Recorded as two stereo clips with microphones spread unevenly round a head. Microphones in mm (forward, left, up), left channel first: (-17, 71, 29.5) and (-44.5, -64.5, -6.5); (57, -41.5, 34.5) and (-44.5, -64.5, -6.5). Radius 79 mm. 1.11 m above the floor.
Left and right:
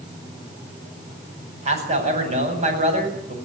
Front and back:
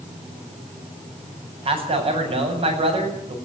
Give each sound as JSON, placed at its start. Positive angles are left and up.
{"t": 1.6, "sound": "a man speaking", "azimuth_deg": -140, "distance_m": 7.5}